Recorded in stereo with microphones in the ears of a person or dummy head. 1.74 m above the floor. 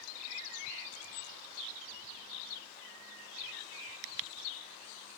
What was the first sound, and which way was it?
Only background noise.